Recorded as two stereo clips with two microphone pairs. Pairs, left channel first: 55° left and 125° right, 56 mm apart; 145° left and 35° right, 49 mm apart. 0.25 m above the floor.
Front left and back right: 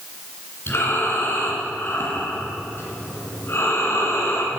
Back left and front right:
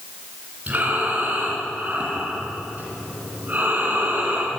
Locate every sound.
0.7 s breathing: 15° left, 2.5 m